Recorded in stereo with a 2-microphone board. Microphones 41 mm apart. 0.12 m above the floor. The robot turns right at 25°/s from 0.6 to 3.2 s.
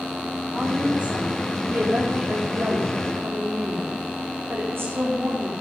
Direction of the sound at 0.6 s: 160° right.